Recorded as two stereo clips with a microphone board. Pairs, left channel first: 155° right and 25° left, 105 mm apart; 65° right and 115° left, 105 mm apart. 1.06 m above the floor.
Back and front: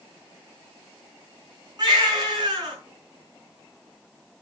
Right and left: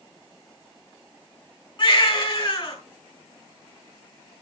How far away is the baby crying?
About 6 m.